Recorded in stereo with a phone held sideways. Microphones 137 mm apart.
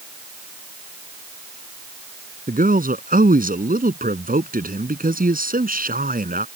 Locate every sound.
2.5 s a man speaking: 80° right; by 6.5 s 85° right